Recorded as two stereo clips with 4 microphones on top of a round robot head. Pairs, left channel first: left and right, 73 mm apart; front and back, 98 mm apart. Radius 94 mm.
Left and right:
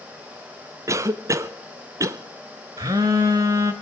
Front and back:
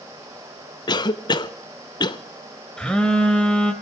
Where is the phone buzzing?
85° right, 0.9 m.